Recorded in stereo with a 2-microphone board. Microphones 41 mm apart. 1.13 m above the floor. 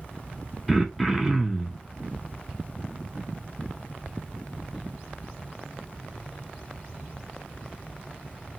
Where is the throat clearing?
Centre (ahead or behind), 0.6 m.